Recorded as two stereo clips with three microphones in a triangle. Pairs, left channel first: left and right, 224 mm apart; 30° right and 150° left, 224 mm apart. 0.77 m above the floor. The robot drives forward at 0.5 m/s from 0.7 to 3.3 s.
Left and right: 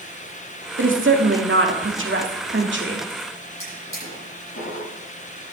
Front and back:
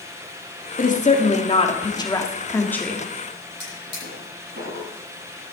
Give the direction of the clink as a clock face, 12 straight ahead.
No clink in this recording.